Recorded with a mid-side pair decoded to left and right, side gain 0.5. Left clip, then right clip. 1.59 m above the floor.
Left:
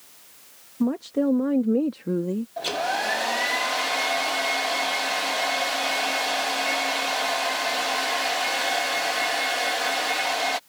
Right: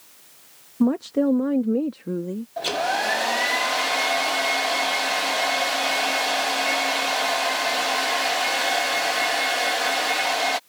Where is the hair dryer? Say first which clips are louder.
Right 3 dB; 15° right.